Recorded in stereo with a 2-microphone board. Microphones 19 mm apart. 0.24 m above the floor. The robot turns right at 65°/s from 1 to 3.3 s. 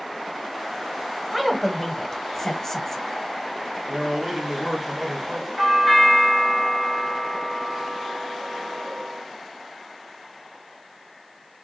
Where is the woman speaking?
10° right (ahead or behind), 1.0 m; by 3.0 s 20° left (ahead or behind), 1.0 m.